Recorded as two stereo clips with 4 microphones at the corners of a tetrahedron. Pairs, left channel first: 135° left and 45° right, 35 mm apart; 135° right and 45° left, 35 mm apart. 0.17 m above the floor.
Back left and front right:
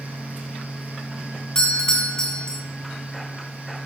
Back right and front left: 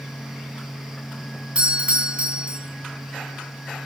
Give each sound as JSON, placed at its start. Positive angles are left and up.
{"t": 1.6, "sound": "a doorbell", "azimuth_deg": 75, "distance_m": 2.5}